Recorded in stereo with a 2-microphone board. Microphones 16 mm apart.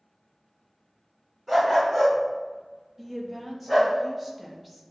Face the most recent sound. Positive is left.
turn(degrees=-10)  # may be behind; listen again after turning